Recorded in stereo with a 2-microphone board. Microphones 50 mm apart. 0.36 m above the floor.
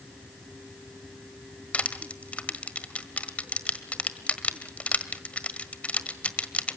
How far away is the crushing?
About 1.4 m.